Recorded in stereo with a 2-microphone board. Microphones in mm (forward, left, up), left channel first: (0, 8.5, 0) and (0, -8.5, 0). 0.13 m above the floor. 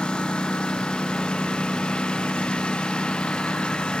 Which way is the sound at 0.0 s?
80° left.